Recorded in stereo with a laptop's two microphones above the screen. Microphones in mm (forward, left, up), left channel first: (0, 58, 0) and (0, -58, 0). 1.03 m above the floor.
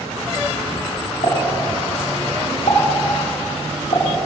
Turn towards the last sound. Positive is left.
turn(degrees=60)  # may be behind; listen again after turning